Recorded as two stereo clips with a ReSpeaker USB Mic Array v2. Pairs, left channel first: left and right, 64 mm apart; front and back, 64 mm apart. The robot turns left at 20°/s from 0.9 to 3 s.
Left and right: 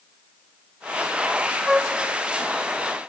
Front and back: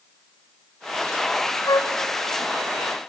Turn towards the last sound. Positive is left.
turn(degrees=-30)